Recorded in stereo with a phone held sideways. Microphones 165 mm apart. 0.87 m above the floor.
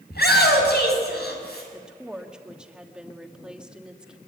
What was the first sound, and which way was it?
A shout, 85° left.